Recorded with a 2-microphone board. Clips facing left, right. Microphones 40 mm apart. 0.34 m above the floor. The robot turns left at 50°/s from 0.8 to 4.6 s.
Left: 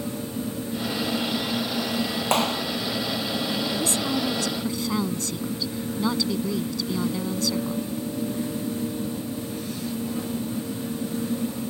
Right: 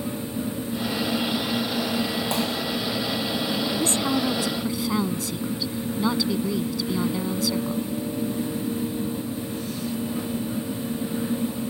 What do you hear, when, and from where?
2.3 s a clap: 55° left (ahead or behind); by 2.6 s 40° left (ahead or behind)
3.8 s a woman speaking: 135° right; by 7.9 s 175° right